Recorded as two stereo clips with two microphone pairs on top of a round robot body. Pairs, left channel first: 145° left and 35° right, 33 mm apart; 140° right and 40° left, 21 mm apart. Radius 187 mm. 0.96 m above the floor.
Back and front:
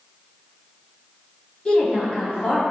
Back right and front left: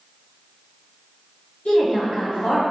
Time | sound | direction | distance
1.6 | a woman speaking | 155° right | 1.7 m